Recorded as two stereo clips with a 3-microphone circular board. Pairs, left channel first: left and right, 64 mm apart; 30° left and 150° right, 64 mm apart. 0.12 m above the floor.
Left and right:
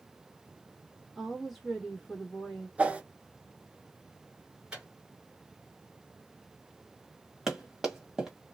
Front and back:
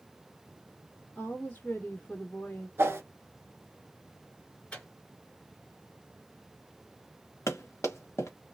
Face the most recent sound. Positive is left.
turn(degrees=-5)